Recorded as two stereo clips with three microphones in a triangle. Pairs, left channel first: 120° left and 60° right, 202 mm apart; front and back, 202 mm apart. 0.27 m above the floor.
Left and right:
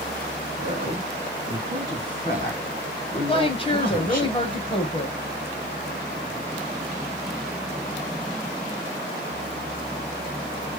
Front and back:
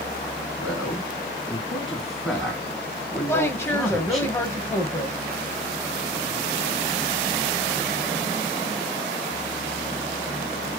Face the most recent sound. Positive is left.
turn(degrees=70)